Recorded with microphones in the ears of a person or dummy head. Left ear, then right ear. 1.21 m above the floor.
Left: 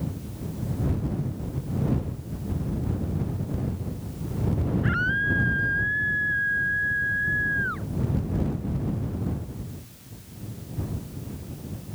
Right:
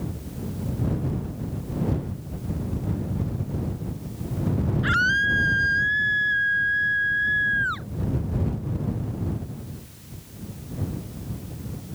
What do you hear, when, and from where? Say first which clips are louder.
4.8 s a scream: right 5 dB; 75° right (ahead or behind); by 7.9 s 70° right (ahead or behind)